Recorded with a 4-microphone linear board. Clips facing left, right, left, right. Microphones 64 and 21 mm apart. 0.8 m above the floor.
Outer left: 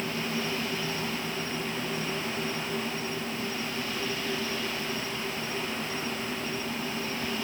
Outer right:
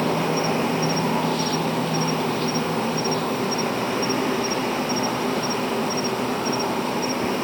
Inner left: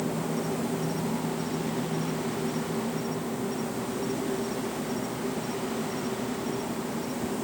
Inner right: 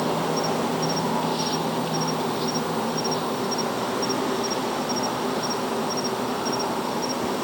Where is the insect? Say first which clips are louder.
Outer right 10 dB, inner right 6 dB; 80° right.